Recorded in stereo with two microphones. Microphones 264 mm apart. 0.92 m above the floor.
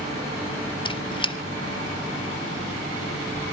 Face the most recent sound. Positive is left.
turn(degrees=20)  # may be behind; listen again after turning